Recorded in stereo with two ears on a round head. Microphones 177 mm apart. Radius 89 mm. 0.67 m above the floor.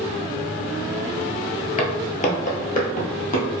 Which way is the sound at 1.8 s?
35° left (ahead or behind).